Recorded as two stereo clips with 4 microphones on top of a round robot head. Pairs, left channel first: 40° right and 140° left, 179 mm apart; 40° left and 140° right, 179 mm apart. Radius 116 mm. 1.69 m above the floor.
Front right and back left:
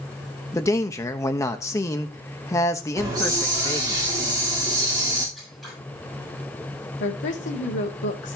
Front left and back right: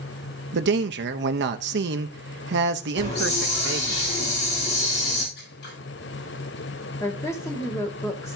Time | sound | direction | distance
0.5 | a man speaking | 115° right | 1.0 m
3.0 | a hiss | 70° left | 3.5 m
5.3 | scissors | 50° left | 6 m
7.0 | a woman speaking | 30° right | 2.5 m